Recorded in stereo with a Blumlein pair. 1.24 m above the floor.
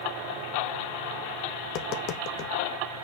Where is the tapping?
40° left, 0.9 m.